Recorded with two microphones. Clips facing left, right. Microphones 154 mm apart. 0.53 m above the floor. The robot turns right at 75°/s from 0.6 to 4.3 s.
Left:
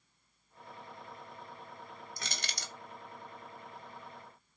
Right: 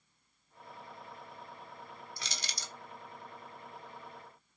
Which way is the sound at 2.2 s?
45° left (ahead or behind).